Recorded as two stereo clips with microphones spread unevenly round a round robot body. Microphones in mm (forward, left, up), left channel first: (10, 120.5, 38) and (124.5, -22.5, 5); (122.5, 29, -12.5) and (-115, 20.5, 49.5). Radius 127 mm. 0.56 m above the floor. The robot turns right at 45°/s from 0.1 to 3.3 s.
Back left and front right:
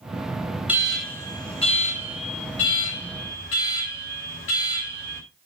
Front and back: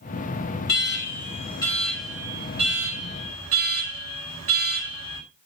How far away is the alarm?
About 4.5 m.